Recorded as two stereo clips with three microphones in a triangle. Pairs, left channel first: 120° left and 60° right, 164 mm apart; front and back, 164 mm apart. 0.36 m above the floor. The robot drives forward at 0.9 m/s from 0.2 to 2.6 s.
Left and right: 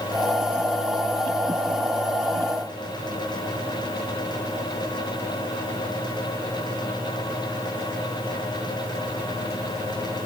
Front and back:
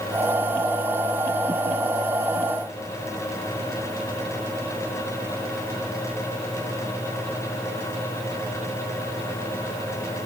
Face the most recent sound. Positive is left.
No sound to turn to.